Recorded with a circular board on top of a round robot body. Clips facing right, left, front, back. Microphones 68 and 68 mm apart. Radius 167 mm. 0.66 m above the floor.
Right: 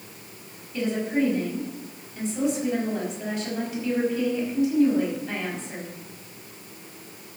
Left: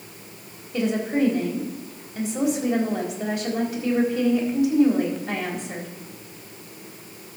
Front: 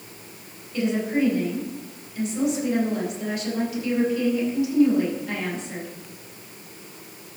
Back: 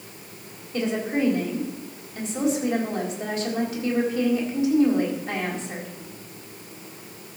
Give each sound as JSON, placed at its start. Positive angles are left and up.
{"t": 0.7, "sound": "a woman speaking", "azimuth_deg": 120, "distance_m": 4.0}